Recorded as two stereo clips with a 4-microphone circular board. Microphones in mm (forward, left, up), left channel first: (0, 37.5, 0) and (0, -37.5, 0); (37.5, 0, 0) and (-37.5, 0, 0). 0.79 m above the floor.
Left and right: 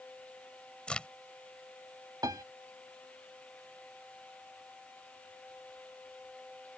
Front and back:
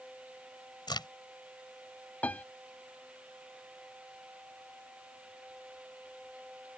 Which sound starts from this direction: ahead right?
A piano, at 2.2 s.